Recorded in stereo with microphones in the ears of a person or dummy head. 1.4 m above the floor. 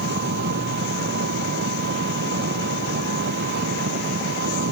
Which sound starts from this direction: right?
An engine running, at 0.0 s.